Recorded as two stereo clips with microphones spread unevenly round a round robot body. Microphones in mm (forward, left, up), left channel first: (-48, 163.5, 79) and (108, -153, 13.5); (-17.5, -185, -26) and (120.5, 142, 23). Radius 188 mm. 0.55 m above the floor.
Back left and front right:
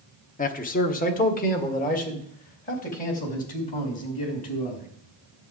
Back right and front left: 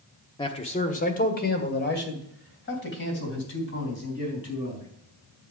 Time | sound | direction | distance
0.4 | a man speaking | 175° right | 1.1 m